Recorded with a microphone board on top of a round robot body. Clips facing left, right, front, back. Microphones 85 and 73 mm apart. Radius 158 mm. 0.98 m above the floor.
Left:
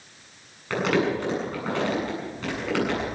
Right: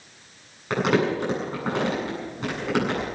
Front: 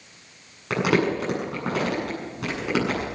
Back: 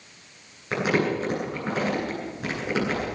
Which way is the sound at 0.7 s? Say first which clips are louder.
Right 1 dB, front 2 dB; 20° right.